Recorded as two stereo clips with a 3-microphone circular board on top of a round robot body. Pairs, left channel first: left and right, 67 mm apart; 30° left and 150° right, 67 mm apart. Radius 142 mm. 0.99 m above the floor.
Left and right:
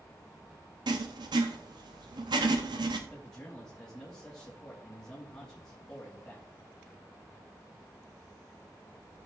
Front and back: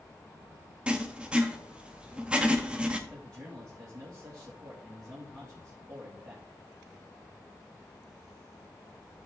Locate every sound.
0.9 s writing: 75° right, 0.8 m
3.1 s a man speaking: 170° left, 2.5 m